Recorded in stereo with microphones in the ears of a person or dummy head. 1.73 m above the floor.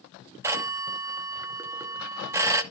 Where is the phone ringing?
15° right (ahead or behind), 0.9 m.